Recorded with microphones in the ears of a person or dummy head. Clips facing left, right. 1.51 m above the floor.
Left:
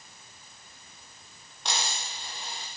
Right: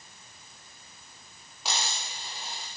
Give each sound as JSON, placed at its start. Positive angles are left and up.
{"t": 1.6, "sound": "a dropped coin", "side_deg": -5, "distance_m": 1.4}